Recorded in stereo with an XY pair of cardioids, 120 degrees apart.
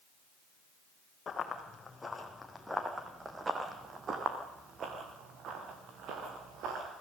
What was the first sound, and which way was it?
Running footsteps, 30° left.